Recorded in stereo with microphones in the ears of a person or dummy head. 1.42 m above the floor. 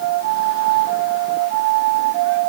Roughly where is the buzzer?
I don't hear a buzzer.